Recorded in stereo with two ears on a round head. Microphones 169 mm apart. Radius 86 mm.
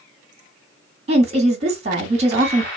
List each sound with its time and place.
1.1 s a woman speaking: 35° right (ahead or behind), 1.2 m